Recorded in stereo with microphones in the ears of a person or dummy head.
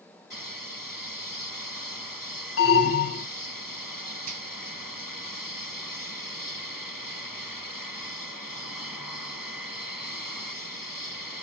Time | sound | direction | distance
2.6 | an alarm | 70° left (ahead or behind) | 1.2 m
4.3 | a finger snap | 50° right (ahead or behind) | 3 m